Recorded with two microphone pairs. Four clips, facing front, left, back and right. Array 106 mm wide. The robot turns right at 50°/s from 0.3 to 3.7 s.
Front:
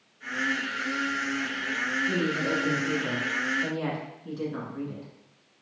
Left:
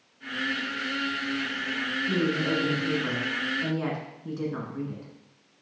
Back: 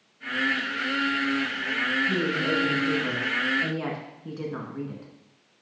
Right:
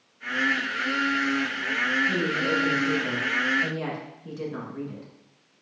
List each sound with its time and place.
2.1 s a woman speaking: 75° left, 1.6 m; by 5.1 s 155° left, 1.6 m